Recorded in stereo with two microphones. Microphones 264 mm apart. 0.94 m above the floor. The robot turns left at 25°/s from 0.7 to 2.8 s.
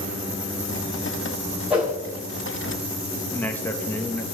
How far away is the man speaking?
About 1.2 m.